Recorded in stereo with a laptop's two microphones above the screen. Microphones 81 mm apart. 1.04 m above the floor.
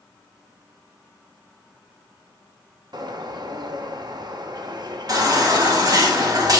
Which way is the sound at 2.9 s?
60° right (ahead or behind).